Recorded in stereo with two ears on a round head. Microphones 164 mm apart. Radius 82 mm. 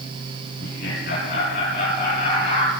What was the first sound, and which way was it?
Laughter, 55° left (ahead or behind).